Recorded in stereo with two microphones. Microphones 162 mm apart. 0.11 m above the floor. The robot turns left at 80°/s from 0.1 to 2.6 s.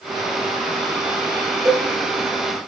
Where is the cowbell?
20° right (ahead or behind), 0.6 m.